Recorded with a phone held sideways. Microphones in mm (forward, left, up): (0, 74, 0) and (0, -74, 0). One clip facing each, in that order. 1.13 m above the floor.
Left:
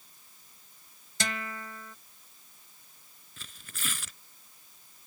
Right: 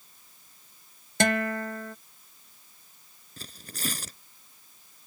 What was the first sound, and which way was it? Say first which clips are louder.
A guitar: right 12 dB; 70° right (ahead or behind).